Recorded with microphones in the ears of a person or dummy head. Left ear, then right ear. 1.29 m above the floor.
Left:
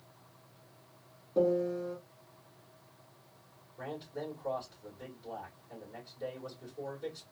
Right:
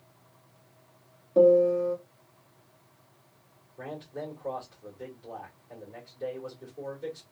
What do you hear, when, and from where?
1.4 s a piano: 35° right (ahead or behind), 1.6 m
3.8 s a man speaking: 30° right (ahead or behind), 2.5 m